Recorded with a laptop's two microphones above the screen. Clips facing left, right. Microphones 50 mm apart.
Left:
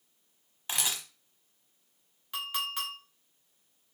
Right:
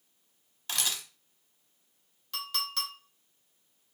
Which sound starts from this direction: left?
A camera shutter, at 0.7 s.